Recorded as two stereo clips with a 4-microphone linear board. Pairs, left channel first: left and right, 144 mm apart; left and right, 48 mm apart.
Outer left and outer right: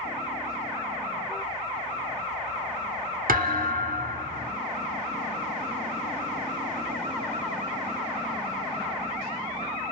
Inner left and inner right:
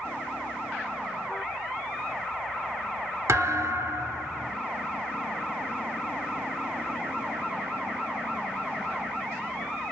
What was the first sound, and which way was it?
A thud, 80° right.